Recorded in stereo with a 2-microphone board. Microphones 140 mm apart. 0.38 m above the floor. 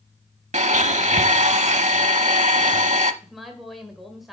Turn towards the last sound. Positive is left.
turn(degrees=0)  # may be behind; listen again after turning